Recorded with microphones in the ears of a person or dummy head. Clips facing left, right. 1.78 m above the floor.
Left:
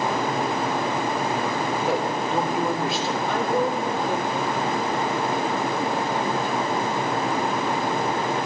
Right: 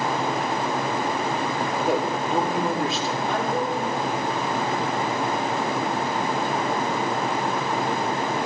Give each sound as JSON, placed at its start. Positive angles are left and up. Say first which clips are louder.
{"t": 1.9, "sound": "a man speaking", "louder": "right 2 dB", "side_deg": 0, "distance_m": 3.0}
{"t": 3.3, "sound": "a woman speaking", "louder": "left 3 dB", "side_deg": 75, "distance_m": 3.0}